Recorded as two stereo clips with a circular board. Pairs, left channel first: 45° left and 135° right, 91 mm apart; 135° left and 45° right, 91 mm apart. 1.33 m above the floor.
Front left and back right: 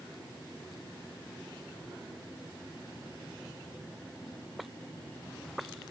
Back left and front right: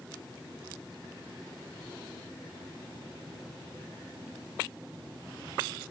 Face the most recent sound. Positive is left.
No sound to turn to.